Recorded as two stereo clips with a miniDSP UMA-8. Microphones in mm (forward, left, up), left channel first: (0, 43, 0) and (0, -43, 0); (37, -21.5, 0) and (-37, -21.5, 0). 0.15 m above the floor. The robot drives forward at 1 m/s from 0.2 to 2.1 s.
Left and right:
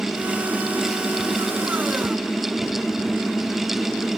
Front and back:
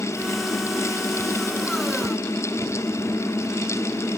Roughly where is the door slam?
No door slam in this recording.